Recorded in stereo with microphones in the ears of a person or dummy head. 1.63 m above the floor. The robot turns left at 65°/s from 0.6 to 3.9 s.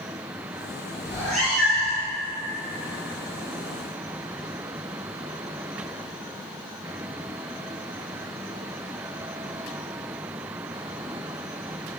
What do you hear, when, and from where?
1.1 s a cat meowing: 15° left (ahead or behind), 1.7 m; by 2.1 s 15° right (ahead or behind), 1.7 m